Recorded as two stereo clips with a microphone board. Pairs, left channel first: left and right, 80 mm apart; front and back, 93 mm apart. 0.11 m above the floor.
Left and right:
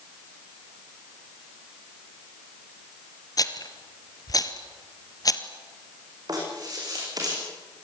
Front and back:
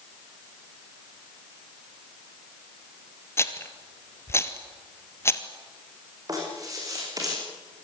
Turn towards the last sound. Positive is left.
turn(degrees=-130)